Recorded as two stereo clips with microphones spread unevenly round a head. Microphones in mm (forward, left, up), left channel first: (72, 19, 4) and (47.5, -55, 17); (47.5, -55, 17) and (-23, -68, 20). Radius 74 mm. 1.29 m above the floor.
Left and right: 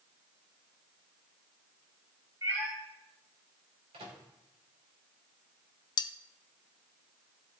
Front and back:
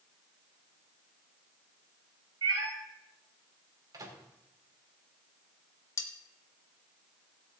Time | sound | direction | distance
2.4 | a cat meowing | 175° right | 3.5 m
3.9 | a microwave | 135° right | 3 m
6.0 | cutlery clinking | 65° left | 0.6 m